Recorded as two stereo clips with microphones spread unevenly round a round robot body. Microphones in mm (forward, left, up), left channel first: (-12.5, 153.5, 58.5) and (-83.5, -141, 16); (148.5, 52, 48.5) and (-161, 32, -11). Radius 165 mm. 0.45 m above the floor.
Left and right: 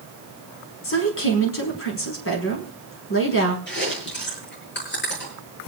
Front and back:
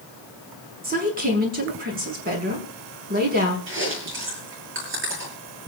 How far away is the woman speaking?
About 5.5 m.